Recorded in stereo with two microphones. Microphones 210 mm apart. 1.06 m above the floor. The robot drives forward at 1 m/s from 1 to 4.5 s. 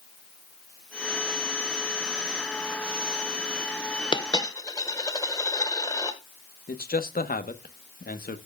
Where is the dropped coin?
20° left (ahead or behind), 1.0 m; by 6.2 s 15° left (ahead or behind), 1.4 m.